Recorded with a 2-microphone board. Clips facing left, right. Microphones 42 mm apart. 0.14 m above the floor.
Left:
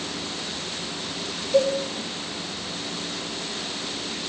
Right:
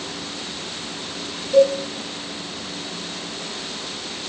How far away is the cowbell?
About 1.1 m.